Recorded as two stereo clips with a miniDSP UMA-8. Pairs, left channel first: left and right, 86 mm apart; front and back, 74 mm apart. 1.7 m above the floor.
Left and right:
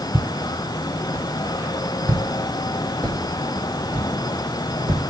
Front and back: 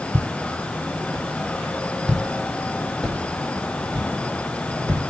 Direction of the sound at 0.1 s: 160° right.